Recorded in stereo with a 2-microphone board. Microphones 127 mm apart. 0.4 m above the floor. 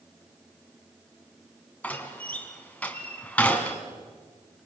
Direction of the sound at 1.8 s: 10° left (ahead or behind).